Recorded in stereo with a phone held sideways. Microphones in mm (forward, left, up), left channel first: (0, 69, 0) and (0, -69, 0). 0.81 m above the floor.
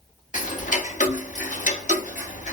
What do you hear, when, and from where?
0.3 s ticking: 65° left (ahead or behind), 0.8 m